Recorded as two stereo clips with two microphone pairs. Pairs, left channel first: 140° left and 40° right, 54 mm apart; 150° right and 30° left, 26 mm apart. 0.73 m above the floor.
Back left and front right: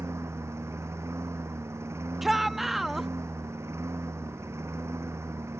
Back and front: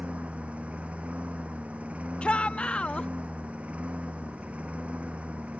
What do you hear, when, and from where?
0.0 s a lawn mower: 5° right
2.2 s a shout: 125° right